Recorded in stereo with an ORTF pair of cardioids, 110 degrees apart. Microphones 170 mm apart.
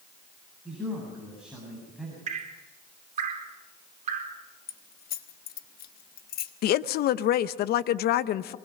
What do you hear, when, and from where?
0.7 s a man speaking: 5° right, 7.5 m
2.3 s dripping: 45° right, 4 m
4.7 s keys jangling: 65° left, 1.4 m
6.6 s a woman speaking: 65° left, 0.8 m